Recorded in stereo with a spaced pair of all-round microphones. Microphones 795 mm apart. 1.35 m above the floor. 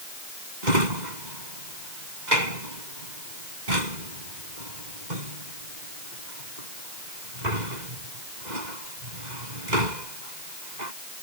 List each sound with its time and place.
0.6 s a drawer: 60° right (ahead or behind)